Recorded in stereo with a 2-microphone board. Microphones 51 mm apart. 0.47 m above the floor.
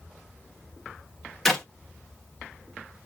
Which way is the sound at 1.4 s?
5° left (ahead or behind).